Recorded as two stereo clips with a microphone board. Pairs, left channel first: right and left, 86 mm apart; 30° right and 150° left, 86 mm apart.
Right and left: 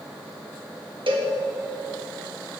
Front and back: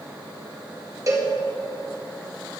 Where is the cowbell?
100° left, 1.5 m.